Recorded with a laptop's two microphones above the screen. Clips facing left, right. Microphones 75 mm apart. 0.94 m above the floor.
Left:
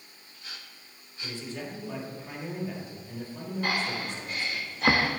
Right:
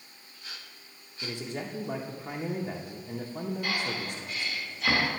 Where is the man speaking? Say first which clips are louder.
Right 2 dB; 55° right (ahead or behind), 0.8 m.